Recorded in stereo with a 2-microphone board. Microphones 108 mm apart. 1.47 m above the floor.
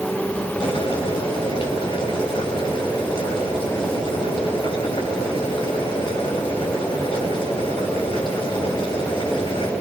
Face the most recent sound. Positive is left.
turn(degrees=55)  # may be behind; listen again after turning